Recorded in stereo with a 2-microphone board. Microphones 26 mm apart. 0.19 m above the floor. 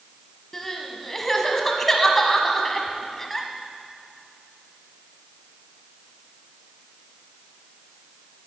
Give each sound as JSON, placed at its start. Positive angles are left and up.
{"t": 0.5, "sound": "crying", "side_deg": 10, "distance_m": 1.3}